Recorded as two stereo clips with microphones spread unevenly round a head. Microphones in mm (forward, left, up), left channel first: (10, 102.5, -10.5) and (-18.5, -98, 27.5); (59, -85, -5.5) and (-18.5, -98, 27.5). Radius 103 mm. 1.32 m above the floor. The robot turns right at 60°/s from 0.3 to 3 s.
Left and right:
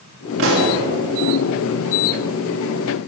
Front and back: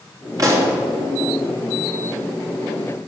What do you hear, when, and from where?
0.4 s a pop: 125° right, 3 m; by 0.8 s 105° right, 3 m